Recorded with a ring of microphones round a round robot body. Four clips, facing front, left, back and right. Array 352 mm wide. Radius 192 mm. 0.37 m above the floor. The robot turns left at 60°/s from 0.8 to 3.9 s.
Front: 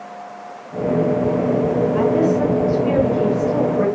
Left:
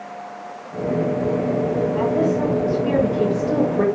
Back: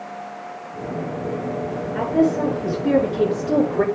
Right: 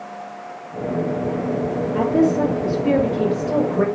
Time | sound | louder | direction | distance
1.9 | a woman speaking | right 5 dB, back 1 dB | 110° right | 5.5 m